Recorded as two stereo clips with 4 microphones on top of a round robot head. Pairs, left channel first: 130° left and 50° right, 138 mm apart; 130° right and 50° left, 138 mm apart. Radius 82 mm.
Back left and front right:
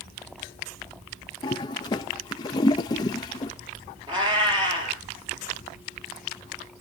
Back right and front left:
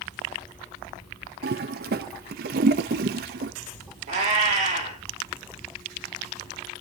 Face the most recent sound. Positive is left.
turn(degrees=10)